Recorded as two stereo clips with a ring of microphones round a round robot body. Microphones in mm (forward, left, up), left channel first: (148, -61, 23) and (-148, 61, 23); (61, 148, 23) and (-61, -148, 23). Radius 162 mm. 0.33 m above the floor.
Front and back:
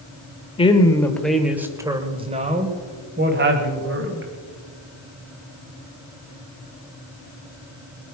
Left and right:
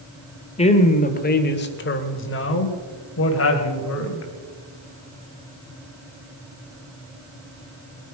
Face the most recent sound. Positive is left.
turn(degrees=110)